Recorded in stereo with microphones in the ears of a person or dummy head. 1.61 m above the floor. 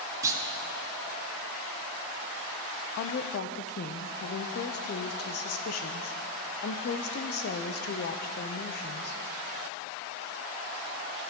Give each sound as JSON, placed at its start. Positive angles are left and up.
{"t": 0.2, "sound": "a clunk", "side_deg": -20, "distance_m": 1.0}
{"t": 3.0, "sound": "a woman speaking", "side_deg": 55, "distance_m": 0.6}